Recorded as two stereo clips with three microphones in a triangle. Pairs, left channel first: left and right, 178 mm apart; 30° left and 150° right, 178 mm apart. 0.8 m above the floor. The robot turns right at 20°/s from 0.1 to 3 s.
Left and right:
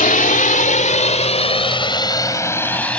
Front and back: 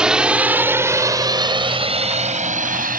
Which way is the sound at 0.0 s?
125° left.